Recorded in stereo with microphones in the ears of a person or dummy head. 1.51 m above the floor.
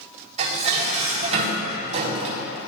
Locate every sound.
0.4 s dishes clattering: 35° right (ahead or behind), 4.5 m